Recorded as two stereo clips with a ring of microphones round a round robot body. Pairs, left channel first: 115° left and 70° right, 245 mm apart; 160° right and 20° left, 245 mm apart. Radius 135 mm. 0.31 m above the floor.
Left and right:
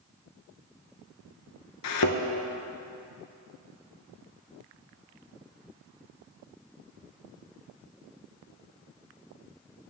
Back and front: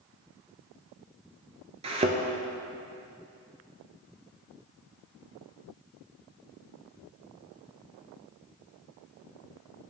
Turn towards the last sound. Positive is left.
turn(degrees=90)